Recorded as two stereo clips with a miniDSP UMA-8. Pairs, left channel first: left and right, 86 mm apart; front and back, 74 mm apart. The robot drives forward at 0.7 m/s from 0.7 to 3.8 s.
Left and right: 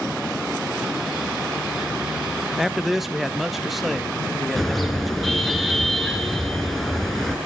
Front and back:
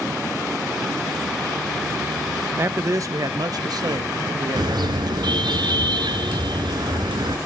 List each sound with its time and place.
2.6 s a man speaking: 175° right, 0.9 m; by 5.6 s straight behind, 1.6 m
4.6 s a car horn: straight behind, 5 m